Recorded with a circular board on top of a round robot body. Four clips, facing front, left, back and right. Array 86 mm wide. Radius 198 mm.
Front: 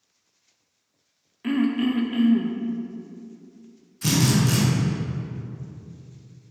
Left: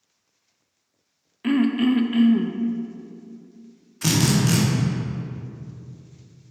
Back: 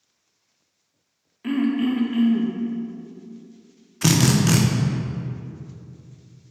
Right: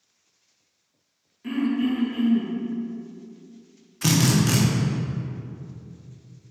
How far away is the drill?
About 0.7 m.